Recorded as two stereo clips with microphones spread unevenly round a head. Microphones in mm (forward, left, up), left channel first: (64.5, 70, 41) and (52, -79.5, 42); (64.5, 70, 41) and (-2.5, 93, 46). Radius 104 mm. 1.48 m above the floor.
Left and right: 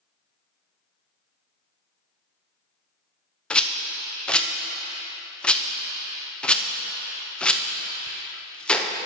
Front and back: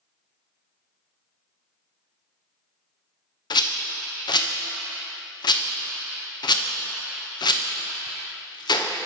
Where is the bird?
No bird in this recording.